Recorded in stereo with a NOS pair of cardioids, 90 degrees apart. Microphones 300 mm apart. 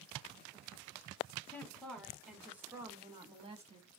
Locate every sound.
1.5 s a woman speaking: 5° left, 2.5 m; by 3.9 s 25° right, 1.8 m